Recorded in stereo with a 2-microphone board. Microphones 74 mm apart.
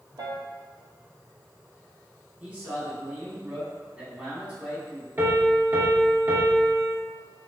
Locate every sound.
0.2 s a piano: 60° right (ahead or behind), 0.7 m
2.4 s a man speaking: 20° right (ahead or behind), 1.7 m
5.2 s a piano: 35° right (ahead or behind), 1.0 m